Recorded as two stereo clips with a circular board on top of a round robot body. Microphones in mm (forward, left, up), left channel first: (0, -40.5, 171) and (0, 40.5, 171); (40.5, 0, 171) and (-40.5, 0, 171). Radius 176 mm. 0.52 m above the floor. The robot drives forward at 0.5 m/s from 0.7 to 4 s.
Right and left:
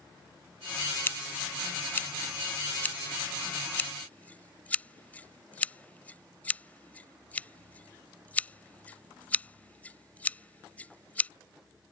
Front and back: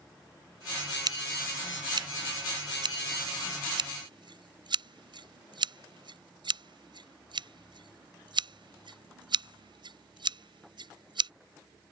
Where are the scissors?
150° right; by 11.3 s 160° right.